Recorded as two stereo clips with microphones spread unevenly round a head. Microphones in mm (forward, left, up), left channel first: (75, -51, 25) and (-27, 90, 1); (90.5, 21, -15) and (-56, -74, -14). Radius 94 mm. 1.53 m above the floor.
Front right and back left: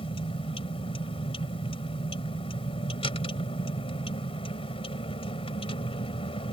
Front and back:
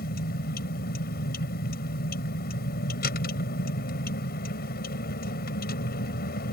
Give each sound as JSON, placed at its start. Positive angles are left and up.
{"t": 0.0, "sound": "a vehicle", "azimuth_deg": 0}